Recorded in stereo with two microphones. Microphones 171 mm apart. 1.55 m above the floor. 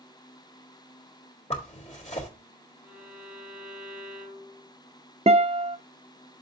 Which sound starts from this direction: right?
A guitar, at 5.3 s.